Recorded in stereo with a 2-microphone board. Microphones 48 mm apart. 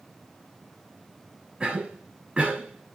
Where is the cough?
20° right (ahead or behind), 1.4 m.